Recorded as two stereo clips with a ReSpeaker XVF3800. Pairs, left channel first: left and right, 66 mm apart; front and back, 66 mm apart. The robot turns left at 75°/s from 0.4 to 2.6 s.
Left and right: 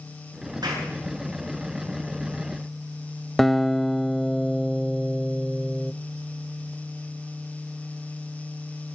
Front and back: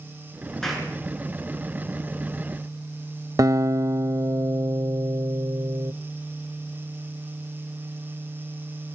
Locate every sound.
0.6 s a clap: 85° right, 8 m; by 0.9 s 105° right, 8 m
3.4 s a guitar: straight behind, 0.8 m